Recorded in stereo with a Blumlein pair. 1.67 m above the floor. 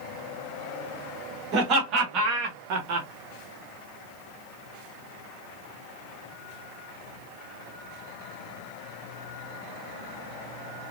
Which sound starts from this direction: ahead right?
Laughter, at 1.5 s.